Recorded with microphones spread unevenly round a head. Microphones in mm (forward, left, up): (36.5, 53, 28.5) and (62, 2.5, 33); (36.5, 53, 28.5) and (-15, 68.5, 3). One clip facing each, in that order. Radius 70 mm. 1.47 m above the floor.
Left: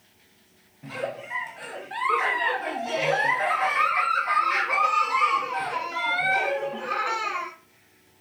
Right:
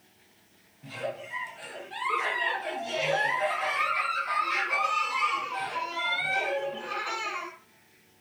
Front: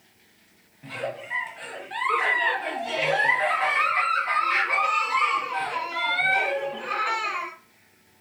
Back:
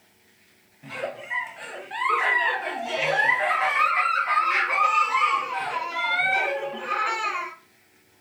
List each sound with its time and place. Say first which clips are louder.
0.8 s a giggle: left 3 dB, even; 70° left, 0.8 m